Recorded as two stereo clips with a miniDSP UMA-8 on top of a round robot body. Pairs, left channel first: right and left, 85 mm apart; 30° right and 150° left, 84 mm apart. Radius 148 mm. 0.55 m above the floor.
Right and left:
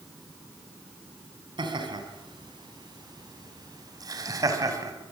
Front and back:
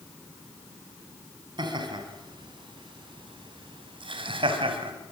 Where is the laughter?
120° left, 6 m; by 4.9 s 140° left, 4.5 m.